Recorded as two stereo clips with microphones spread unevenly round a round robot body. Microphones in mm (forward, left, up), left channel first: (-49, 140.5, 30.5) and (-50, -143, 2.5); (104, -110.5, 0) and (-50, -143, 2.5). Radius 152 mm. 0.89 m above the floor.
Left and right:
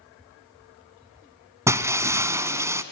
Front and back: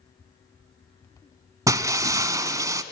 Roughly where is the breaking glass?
Behind.